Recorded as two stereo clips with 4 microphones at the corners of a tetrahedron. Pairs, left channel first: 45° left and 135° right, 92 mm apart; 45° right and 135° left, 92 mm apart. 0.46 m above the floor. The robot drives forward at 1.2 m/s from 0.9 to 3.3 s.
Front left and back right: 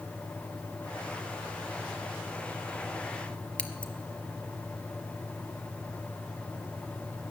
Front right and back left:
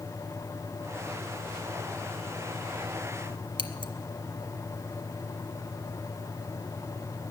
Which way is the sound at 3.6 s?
120° left.